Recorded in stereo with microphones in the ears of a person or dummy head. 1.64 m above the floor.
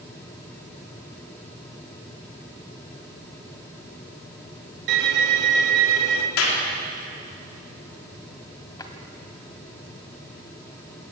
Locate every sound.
4.9 s a violin: 70° right (ahead or behind), 2.5 m
6.4 s a clap: 85° left, 4 m
8.8 s a drawer: 20° left (ahead or behind), 2 m